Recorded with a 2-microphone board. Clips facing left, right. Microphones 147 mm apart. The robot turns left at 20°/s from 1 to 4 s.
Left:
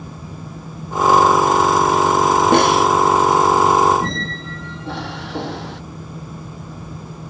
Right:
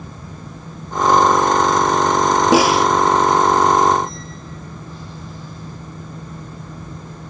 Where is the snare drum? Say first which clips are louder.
Right 1 dB; 5° right (ahead or behind); by 2.9 s centre (ahead or behind).